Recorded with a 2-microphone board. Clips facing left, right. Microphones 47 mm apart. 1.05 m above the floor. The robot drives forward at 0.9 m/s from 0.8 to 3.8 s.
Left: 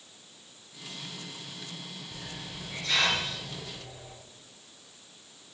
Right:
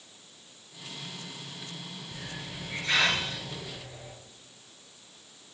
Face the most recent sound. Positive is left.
turn(degrees=-25)  # may be behind; listen again after turning